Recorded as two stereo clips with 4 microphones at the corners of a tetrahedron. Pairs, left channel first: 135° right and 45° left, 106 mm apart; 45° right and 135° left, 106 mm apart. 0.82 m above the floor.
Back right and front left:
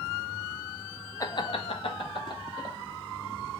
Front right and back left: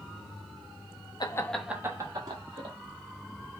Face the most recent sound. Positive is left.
turn(degrees=175)